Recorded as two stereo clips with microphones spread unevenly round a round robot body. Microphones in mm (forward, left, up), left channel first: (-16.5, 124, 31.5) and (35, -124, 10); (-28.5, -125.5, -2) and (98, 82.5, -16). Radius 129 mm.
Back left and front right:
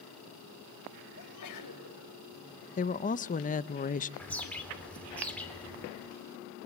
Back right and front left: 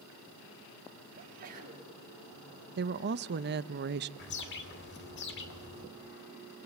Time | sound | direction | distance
1.2 | a sneeze | 120° left | 5 m
2.8 | a woman speaking | 50° left | 0.6 m
4.2 | a bird | 175° right | 2 m